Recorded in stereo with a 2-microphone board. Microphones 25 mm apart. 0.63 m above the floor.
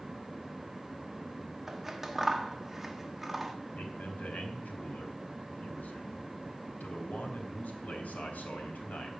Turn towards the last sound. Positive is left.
turn(degrees=70)  # may be behind; listen again after turning